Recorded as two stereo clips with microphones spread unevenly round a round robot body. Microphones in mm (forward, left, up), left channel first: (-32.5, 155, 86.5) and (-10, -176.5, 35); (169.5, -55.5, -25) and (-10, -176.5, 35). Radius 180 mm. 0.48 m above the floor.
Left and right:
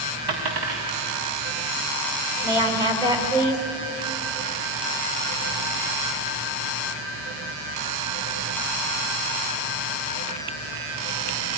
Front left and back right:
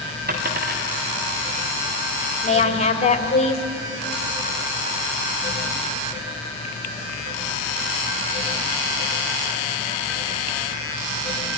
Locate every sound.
0.3 s a dropped coin: 105° right, 4 m
2.4 s a woman speaking: 10° right, 2 m